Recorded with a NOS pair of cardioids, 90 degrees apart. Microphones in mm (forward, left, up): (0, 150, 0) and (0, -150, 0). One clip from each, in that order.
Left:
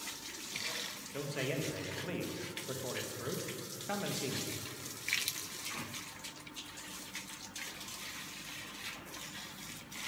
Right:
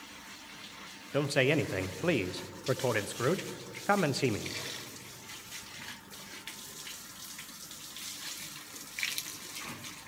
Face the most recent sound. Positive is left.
turn(degrees=-65)